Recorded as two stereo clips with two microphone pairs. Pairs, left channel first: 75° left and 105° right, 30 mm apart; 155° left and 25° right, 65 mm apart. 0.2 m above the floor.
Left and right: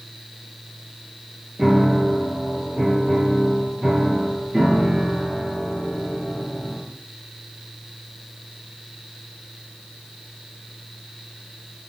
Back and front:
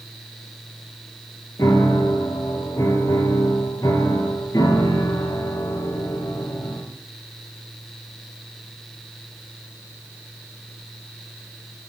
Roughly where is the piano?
Behind.